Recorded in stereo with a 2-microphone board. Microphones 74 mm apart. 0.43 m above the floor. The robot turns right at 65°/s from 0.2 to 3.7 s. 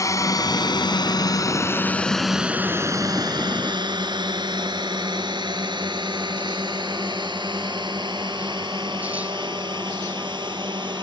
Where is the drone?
45° left (ahead or behind); by 11.0 s 85° right.